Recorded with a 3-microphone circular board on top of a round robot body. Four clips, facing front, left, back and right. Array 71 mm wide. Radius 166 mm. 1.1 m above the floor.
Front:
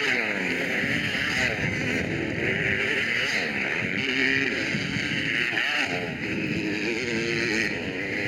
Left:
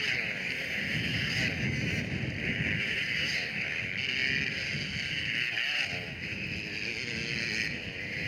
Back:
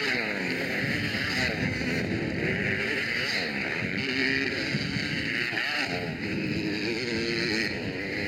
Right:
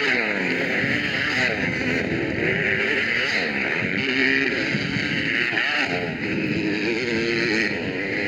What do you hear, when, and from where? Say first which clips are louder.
0.0 s a motorcycle: right 12 dB, front 3 dB; 75° right